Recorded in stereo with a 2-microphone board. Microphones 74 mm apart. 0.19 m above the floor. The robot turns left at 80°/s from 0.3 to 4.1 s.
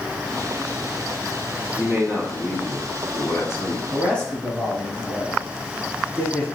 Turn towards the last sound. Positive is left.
turn(degrees=15)  # may be behind; listen again after turning